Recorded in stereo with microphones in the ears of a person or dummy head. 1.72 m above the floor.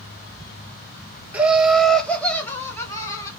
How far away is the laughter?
About 1.4 m.